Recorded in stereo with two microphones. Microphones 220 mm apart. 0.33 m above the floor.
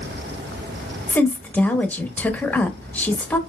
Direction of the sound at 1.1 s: 5° left (ahead or behind).